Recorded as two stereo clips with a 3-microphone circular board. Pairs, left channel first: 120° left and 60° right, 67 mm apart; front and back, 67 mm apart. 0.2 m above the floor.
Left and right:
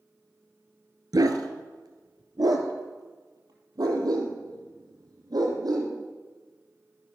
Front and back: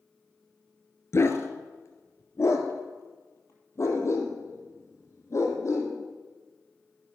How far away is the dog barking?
About 1.5 m.